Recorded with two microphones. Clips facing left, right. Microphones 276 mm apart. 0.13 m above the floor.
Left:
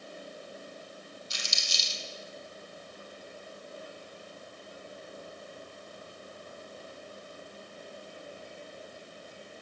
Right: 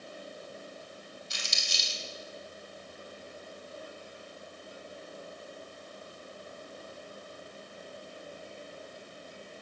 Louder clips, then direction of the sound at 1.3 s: Even; 60° right (ahead or behind).